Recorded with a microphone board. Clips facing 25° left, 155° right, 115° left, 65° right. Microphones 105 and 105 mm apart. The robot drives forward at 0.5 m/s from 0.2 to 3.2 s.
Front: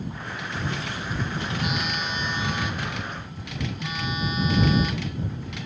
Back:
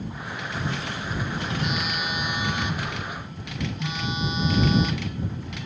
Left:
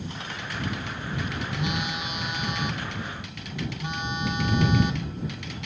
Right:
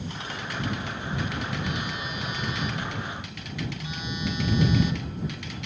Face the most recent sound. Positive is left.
turn(degrees=140)